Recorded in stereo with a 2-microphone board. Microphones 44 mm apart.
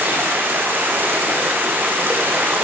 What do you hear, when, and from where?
0.0 s running water: 50° right (ahead or behind), 6 m